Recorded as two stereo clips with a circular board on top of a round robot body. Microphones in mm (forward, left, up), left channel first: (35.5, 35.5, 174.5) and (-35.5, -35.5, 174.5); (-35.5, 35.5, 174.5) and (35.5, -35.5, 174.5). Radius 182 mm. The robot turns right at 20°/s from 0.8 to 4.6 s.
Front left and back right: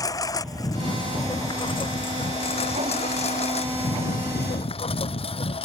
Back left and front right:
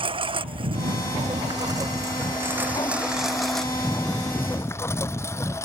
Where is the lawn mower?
10° right; by 5.7 s 70° left.